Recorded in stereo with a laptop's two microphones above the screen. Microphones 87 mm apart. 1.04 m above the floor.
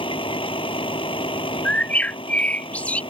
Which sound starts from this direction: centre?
A bird, at 1.6 s.